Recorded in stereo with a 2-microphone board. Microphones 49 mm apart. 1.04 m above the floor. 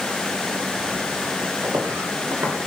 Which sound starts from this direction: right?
Footsteps, at 1.6 s.